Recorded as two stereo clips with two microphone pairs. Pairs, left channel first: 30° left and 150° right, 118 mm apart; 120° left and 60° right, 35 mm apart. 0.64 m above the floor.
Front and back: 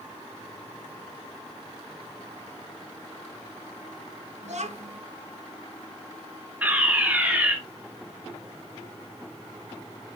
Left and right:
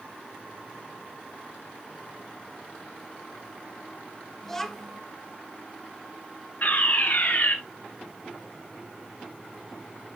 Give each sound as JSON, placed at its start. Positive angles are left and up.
{"t": 4.4, "sound": "a child speaking", "azimuth_deg": -165, "distance_m": 1.3}
{"t": 6.6, "sound": "a fire alarm", "azimuth_deg": 135, "distance_m": 2.0}